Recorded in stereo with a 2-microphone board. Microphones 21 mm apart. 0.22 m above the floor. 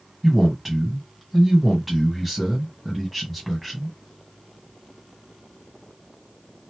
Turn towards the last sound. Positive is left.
turn(degrees=0)  # may be behind; listen again after turning